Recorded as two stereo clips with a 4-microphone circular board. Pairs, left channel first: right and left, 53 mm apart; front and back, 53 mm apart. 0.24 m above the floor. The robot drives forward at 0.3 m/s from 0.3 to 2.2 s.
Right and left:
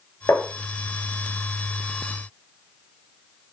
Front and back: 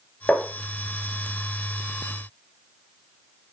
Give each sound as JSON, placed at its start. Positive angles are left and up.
{"t": 0.3, "sound": "tapping", "azimuth_deg": -65, "distance_m": 3.0}